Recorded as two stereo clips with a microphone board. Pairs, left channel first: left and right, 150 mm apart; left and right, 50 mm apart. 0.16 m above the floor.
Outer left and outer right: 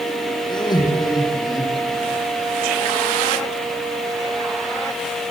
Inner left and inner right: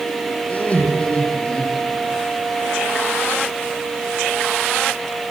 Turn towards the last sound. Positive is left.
turn(degrees=20)  # may be behind; listen again after turning